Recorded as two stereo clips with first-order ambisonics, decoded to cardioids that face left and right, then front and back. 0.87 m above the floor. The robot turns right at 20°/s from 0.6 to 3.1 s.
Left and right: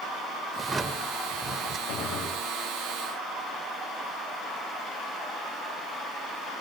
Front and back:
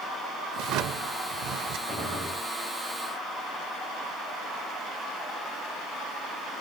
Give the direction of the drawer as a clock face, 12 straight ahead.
6 o'clock.